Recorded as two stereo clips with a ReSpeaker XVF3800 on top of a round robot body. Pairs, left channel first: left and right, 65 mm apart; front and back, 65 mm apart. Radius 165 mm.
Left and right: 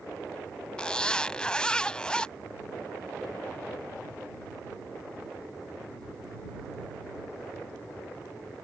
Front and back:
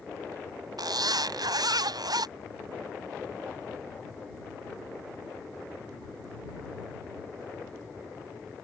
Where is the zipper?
170° left.